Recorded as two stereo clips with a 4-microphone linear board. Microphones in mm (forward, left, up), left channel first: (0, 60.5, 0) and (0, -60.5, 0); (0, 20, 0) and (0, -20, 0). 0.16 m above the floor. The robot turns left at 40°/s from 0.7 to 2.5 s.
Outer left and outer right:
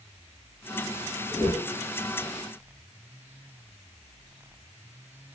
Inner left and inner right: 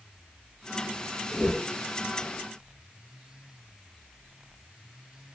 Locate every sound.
1.3 s a whoosh: 35° left (ahead or behind), 1.2 m; by 1.7 s 30° left (ahead or behind), 1.2 m